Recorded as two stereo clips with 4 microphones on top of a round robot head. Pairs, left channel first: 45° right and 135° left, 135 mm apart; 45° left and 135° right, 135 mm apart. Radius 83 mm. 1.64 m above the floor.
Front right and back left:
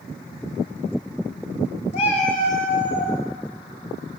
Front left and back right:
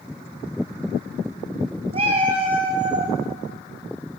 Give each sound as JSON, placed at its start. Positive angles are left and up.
{"t": 1.9, "sound": "a cat meowing", "azimuth_deg": -90, "distance_m": 3.0}